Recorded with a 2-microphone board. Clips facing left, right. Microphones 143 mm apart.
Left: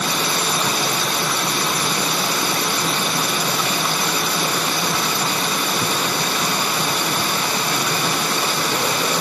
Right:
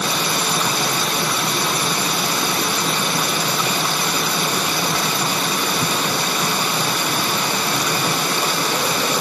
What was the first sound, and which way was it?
Only background noise.